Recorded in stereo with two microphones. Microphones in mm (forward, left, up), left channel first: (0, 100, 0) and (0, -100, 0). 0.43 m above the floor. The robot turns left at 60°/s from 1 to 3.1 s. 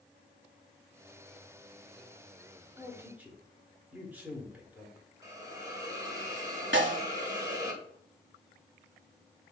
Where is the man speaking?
15° right (ahead or behind), 1.4 m; by 5.1 s 10° right (ahead or behind), 1.4 m.